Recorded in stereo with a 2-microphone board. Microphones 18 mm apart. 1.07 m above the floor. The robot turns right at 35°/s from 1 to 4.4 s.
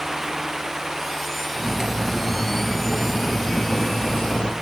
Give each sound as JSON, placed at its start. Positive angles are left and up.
{"t": 1.6, "sound": "cutlery clinking", "azimuth_deg": -25, "distance_m": 0.6}